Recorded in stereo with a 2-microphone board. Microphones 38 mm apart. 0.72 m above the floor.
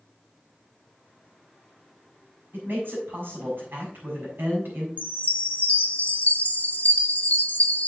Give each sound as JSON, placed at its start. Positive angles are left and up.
{"t": 2.5, "sound": "a man speaking", "side_deg": -70, "distance_m": 6.5}
{"t": 5.0, "sound": "a chime", "side_deg": 45, "distance_m": 1.0}